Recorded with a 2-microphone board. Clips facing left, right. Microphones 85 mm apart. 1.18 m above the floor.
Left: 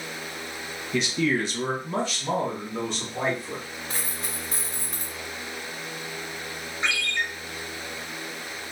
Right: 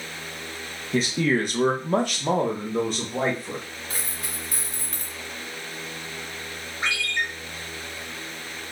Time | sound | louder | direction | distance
0.9 | a man speaking | right 2 dB | 35° right (ahead or behind) | 0.8 m
3.9 | a dropped coin | left 1 dB | 30° left (ahead or behind) | 1.0 m
6.8 | a ringtone | right 1 dB | 45° right (ahead or behind) | 1.4 m